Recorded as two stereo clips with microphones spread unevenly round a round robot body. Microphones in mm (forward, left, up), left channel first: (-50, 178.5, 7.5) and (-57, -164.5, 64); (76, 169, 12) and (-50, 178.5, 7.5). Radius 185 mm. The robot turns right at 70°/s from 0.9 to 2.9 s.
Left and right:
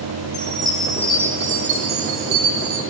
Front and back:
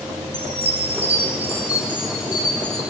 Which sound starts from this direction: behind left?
A chime, at 0.3 s.